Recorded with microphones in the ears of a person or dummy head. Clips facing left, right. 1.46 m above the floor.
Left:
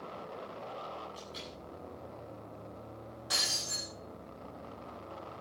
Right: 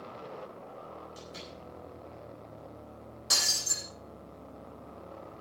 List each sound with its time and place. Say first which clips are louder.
1.1 s a door slam: right 1 dB; 25° right (ahead or behind), 9.5 m
3.3 s breaking glass: right 1 dB; 50° right (ahead or behind), 5.5 m